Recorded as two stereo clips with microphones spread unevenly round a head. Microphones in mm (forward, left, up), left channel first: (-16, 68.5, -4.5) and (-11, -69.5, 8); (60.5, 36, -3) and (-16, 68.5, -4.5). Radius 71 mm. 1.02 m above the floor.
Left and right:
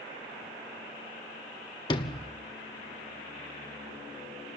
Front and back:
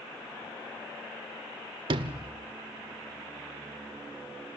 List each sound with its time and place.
1.9 s a sliding door: 150° left, 1.1 m